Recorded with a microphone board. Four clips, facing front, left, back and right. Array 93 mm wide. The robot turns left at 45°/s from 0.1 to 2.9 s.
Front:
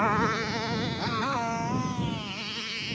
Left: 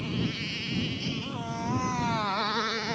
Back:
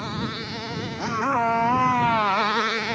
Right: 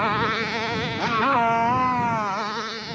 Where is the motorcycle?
60° right; by 3.0 s 170° left.